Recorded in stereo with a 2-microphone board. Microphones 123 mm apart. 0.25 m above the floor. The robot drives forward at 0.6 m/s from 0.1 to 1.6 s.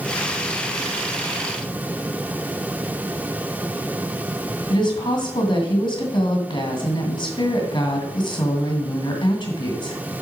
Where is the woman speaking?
40° left (ahead or behind), 2.0 m.